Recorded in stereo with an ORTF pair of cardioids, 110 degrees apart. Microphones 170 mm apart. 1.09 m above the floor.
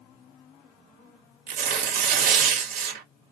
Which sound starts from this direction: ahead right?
Tearing paper, at 1.5 s.